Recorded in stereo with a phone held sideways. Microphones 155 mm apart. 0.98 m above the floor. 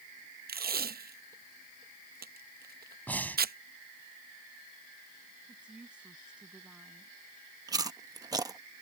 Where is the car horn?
No car horn in this recording.